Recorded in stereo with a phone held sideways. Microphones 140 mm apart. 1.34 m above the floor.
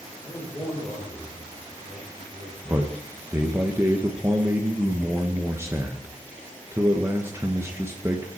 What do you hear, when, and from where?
0.2 s a man speaking: 20° left (ahead or behind), 5.5 m
2.6 s a man speaking: 20° right (ahead or behind), 1.0 m